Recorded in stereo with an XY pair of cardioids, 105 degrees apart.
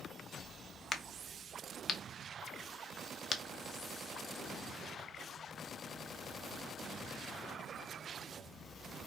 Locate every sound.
0.9 s a crack: 40° left, 0.7 m